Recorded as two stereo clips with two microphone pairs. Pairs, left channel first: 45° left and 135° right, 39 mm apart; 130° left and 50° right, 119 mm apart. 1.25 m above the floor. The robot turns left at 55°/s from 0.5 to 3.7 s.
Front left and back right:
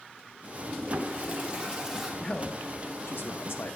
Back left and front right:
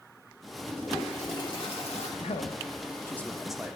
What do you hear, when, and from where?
0.7 s a toilet flushing: 140° right, 1.4 m; by 2.1 s 140° left, 1.4 m
2.2 s a man speaking: 110° left, 0.6 m; by 3.8 s 30° left, 0.6 m